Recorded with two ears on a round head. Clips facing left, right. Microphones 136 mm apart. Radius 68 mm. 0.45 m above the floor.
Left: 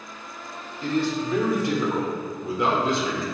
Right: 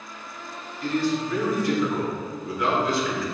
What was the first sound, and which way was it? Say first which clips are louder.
A man speaking: even; 20° left (ahead or behind).